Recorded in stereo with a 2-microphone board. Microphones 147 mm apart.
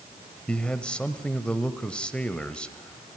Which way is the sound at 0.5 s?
5° left (ahead or behind).